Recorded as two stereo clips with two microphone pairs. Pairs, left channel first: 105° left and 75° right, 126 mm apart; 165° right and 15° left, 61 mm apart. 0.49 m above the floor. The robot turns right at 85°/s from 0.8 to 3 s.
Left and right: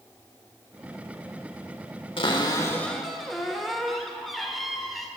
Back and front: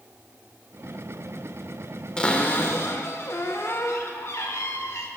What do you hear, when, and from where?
2.2 s a cupboard door: 120° left, 1.2 m; by 5.1 s 165° right, 1.2 m